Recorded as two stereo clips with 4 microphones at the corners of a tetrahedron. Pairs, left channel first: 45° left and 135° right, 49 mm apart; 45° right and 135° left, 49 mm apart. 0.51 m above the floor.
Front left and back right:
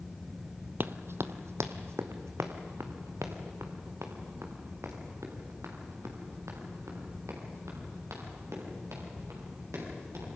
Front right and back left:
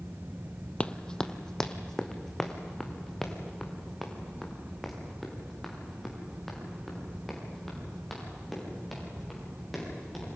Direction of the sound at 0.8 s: 110° right.